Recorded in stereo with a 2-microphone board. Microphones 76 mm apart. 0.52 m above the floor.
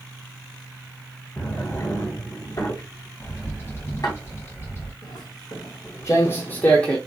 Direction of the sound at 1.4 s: 50° left (ahead or behind).